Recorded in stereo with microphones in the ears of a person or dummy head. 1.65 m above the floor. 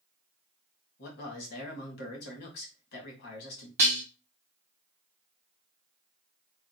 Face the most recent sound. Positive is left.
turn(degrees=-10)  # may be behind; listen again after turning